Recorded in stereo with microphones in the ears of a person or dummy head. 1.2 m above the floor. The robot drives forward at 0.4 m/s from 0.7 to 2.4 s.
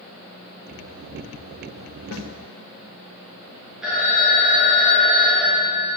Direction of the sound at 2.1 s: 65° left (ahead or behind).